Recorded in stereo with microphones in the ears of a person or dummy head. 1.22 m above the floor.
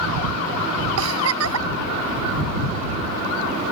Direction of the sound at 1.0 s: 90° right.